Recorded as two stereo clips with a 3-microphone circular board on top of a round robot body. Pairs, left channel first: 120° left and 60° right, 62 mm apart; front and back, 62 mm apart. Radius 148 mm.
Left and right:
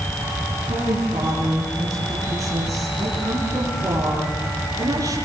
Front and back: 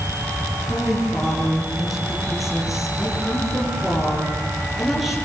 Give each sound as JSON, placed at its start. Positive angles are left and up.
{"t": 0.7, "sound": "a woman speaking", "azimuth_deg": -95, "distance_m": 9.5}